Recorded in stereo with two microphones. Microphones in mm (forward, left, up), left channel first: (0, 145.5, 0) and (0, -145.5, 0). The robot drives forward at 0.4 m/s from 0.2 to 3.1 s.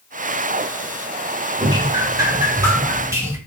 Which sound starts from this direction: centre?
Dripping, at 1.6 s.